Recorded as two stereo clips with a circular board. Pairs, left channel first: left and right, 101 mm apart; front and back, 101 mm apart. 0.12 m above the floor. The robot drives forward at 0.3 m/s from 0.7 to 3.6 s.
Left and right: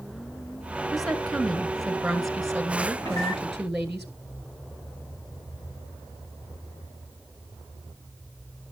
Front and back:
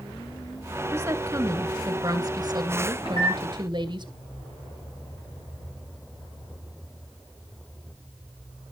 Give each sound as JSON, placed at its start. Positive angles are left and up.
{"t": 0.9, "sound": "a woman speaking", "azimuth_deg": -175, "distance_m": 1.2}
{"t": 3.0, "sound": "a microwave", "azimuth_deg": 40, "distance_m": 9.5}